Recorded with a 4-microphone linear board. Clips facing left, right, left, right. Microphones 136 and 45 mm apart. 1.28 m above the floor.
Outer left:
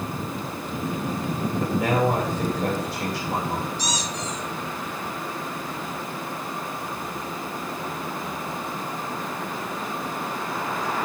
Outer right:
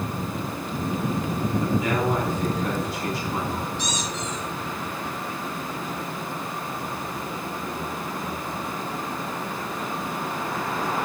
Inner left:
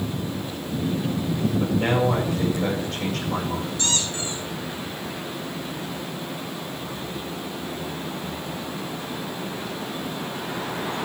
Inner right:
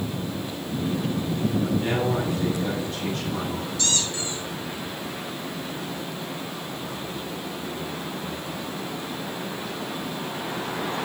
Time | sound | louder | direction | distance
1.6 | a man speaking | outer left 4 dB, inner left 3 dB | 85° left | 7 m
3.8 | a squeak | even, inner left 1 dB | 35° left (ahead or behind) | 3.5 m